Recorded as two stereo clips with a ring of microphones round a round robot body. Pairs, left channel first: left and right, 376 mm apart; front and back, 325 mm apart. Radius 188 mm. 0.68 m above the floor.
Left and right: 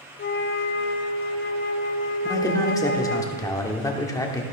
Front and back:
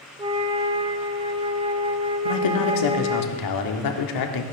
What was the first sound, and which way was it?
A flute, 120° left.